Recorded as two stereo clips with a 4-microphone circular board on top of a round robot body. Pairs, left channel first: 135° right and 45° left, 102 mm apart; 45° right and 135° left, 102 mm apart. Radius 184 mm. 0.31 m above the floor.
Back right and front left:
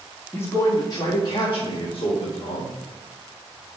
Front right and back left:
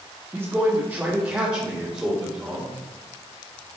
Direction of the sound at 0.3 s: Straight behind.